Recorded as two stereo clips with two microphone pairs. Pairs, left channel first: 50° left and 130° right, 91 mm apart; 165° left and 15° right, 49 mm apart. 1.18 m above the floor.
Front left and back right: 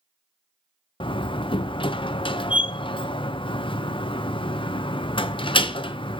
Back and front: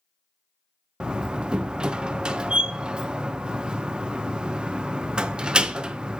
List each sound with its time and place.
1.0 s a door slam: 55° left, 0.5 m